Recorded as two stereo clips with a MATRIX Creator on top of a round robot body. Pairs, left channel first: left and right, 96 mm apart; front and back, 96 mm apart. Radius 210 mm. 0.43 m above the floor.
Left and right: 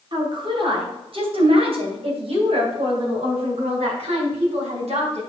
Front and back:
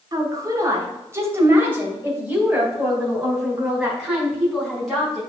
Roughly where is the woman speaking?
Behind right.